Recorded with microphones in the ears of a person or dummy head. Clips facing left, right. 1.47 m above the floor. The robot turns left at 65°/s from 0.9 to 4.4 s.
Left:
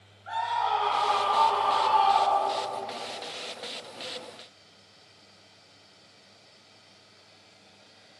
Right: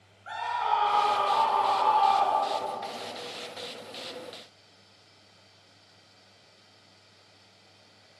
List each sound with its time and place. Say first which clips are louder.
0.3 s a scream: left 1 dB; 140° right, 2 m; by 2.7 s 105° left, 2 m